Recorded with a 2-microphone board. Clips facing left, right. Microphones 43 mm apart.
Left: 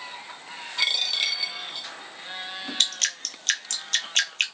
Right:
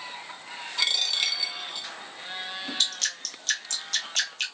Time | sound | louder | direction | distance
0.8 | a dropped coin | left 2 dB | 10° left (ahead or behind) | 1.1 m
2.8 | dripping | left 4 dB | 55° left (ahead or behind) | 0.7 m